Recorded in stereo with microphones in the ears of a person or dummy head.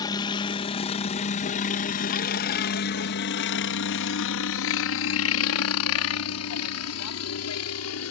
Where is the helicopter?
25° left (ahead or behind); by 8.1 s 75° left (ahead or behind).